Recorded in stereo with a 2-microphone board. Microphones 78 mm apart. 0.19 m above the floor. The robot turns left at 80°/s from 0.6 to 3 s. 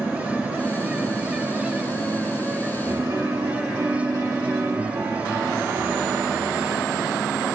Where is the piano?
35° right (ahead or behind), 2.5 m; by 6.7 s 45° right (ahead or behind), 2.5 m.